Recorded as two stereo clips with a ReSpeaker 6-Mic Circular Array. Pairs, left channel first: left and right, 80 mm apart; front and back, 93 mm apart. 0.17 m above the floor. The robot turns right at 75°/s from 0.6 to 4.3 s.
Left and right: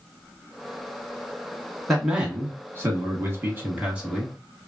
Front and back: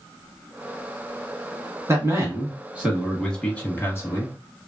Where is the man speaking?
175° left, 1.2 m; by 4.3 s 5° right, 1.2 m.